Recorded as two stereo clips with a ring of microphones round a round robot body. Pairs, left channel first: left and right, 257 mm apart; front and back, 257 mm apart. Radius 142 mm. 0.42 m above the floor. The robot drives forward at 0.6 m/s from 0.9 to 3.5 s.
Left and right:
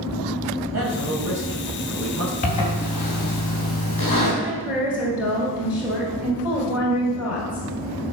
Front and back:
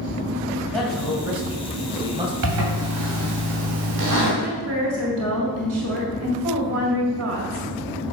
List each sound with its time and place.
0.7 s a man speaking: 90° right, 2 m; by 2.3 s 115° right, 2 m
2.4 s a zipper: 150° left, 2.5 m; by 4.3 s 155° left, 3 m
4.4 s a woman speaking: 175° right, 1.9 m